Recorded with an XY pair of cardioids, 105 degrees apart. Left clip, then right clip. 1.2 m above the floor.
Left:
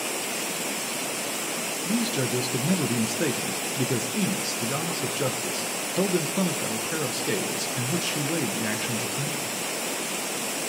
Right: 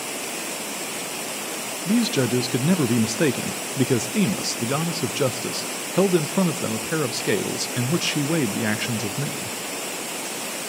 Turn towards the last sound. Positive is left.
turn(degrees=-45)